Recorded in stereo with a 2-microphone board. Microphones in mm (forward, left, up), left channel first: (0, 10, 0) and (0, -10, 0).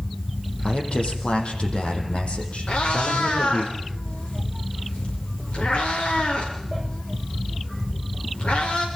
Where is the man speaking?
60° left (ahead or behind), 5 m; by 3.7 s 75° left (ahead or behind), 6 m.